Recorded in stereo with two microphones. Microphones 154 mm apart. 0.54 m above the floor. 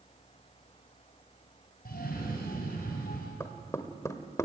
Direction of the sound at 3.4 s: 20° left (ahead or behind).